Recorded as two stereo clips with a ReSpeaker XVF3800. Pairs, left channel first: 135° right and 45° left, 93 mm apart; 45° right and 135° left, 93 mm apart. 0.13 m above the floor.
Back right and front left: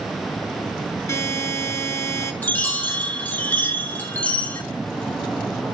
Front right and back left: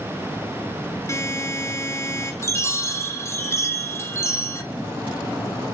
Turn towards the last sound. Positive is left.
turn(degrees=-75)